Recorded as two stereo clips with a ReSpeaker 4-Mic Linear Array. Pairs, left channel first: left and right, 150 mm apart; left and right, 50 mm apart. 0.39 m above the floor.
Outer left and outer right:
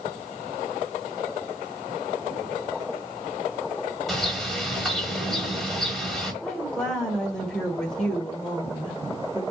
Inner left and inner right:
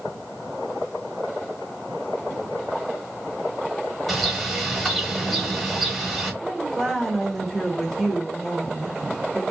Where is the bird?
Centre (ahead or behind), 1.0 m.